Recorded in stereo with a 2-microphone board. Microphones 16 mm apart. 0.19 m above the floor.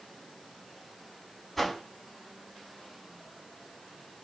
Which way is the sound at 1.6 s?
15° left (ahead or behind).